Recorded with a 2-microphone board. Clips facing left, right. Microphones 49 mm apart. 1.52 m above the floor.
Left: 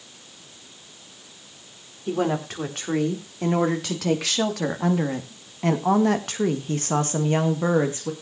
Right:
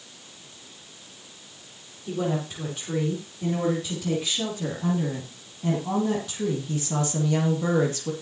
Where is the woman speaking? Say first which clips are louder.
Left 4 dB; 60° left (ahead or behind), 4 m; by 8.1 s 25° left (ahead or behind), 2 m.